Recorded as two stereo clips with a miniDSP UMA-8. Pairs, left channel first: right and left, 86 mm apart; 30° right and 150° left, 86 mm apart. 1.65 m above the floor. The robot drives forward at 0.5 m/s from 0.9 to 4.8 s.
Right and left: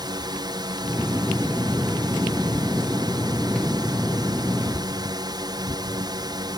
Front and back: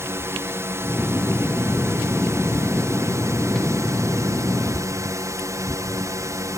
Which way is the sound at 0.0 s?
95° left.